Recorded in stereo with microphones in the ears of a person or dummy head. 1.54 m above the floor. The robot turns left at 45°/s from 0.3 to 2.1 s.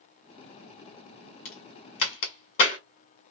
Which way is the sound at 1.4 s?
50° left (ahead or behind).